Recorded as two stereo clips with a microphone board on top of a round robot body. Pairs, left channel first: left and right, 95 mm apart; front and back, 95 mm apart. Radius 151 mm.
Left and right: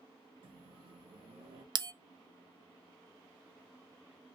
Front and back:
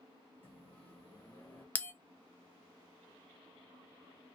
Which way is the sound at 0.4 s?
70° right.